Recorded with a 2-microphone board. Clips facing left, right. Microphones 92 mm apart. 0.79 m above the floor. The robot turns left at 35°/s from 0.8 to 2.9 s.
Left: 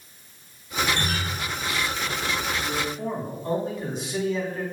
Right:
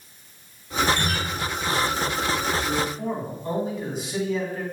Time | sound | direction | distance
0.9 | a guitar | 40° left (ahead or behind) | 1.7 m
2.6 | a man speaking | centre (ahead or behind) | 1.1 m